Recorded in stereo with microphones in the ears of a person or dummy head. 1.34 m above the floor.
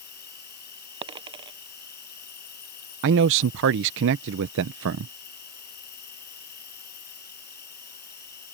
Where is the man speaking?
65° right (ahead or behind).